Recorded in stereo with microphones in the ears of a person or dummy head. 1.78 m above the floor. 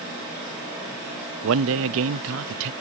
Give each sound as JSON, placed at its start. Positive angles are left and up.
{"t": 1.4, "sound": "a man speaking", "side_deg": -75}